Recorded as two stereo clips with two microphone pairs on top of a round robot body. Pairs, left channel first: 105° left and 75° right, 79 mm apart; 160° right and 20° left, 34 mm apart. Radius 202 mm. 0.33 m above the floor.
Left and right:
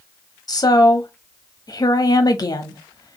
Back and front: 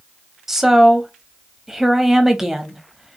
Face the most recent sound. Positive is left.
turn(degrees=100)